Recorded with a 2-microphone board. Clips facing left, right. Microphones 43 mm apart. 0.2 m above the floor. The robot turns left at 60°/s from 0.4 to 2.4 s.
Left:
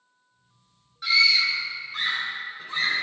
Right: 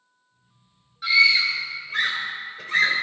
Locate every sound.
1.0 s a scream: 5° right (ahead or behind), 3 m; by 3.0 s 65° right (ahead or behind), 3 m